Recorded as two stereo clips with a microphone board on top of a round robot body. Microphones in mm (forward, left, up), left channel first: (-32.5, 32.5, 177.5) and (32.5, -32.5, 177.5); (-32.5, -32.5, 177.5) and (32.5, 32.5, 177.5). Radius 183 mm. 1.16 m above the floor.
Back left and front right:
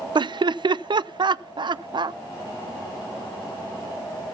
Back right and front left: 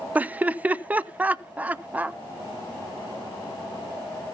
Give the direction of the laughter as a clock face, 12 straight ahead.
1 o'clock.